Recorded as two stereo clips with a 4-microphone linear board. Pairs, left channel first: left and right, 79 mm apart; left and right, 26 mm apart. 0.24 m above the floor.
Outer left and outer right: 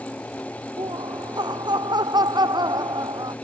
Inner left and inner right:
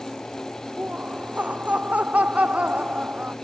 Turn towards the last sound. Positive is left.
turn(degrees=-60)  # may be behind; listen again after turning